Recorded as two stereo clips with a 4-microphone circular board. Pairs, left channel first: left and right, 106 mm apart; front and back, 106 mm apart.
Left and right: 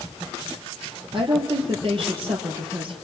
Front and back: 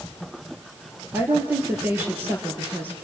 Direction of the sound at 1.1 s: 110° right.